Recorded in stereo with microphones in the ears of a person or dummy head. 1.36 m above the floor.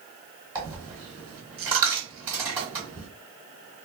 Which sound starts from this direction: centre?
A dropped coin, at 0.6 s.